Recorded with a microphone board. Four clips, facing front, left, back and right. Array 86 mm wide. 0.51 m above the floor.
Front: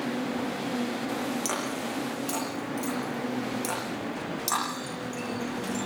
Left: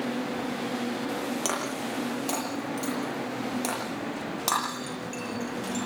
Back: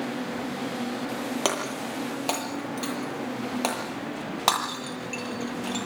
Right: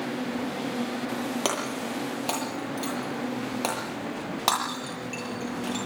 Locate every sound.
1.4 s breaking glass: 155° right, 8 m